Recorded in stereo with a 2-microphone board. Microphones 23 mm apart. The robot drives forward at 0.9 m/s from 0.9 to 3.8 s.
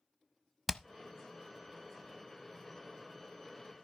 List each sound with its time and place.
0.7 s hammering: 5° right (ahead or behind), 0.7 m